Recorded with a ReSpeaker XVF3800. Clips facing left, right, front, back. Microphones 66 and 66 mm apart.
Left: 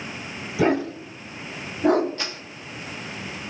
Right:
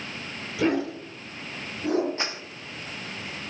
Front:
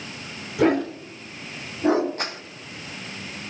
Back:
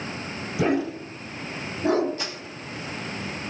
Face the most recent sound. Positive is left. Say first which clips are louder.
# right 1 dB, front 3 dB
turn(degrees=-30)